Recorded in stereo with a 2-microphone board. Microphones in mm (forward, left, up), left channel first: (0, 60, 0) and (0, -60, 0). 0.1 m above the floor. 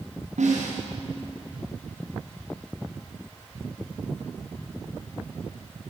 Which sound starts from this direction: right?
A snare drum, at 0.4 s.